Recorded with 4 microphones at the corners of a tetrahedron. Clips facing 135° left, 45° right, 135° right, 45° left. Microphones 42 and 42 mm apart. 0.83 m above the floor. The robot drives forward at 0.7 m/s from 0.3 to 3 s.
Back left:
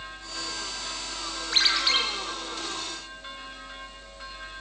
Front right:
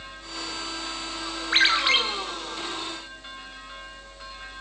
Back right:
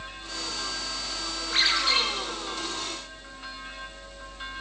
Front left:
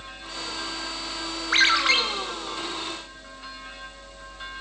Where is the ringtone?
15° left, 4.5 m.